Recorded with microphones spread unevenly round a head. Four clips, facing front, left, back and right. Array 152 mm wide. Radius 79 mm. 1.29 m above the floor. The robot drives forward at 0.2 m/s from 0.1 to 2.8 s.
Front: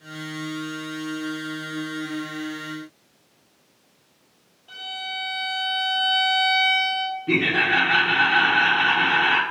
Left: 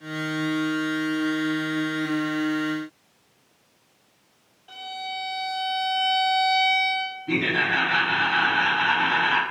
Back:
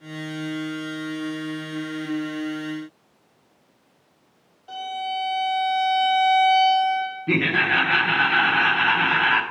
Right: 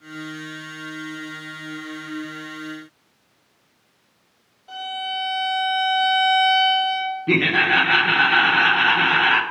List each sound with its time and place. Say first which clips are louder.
4.7 s a violin: right 5 dB, back 7 dB; 160° right, 2.0 m
7.3 s laughter: right 5 dB, even; 85° right, 1.0 m